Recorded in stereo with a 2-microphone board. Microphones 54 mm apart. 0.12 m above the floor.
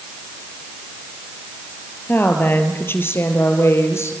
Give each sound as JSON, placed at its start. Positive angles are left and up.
{"t": 2.1, "sound": "a woman speaking", "side_deg": 40, "distance_m": 3.0}